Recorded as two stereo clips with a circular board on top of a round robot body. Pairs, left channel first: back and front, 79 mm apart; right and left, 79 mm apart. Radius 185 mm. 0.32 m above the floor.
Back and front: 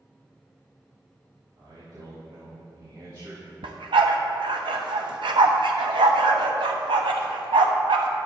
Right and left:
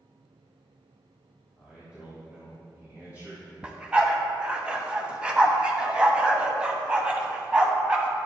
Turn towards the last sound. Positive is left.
turn(degrees=15)